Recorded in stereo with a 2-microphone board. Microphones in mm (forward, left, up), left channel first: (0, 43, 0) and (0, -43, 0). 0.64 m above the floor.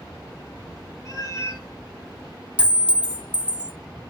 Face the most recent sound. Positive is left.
turn(degrees=-15)  # may be behind; listen again after turning